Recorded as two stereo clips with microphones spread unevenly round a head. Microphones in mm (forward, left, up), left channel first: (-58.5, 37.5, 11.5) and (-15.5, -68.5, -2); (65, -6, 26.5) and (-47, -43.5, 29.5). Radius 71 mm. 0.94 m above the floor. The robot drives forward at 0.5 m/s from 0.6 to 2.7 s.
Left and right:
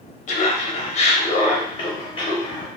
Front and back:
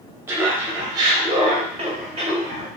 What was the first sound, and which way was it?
Laughter, 125° left.